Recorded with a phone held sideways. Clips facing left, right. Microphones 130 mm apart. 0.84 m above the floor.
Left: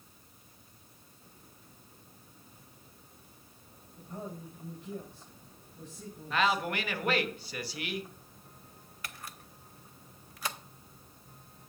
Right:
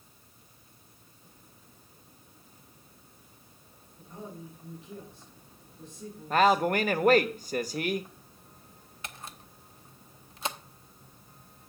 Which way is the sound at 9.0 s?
25° right (ahead or behind).